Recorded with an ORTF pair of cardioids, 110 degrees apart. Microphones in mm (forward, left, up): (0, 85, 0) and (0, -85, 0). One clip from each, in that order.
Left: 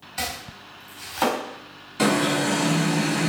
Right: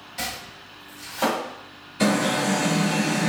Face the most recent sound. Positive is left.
turn(degrees=60)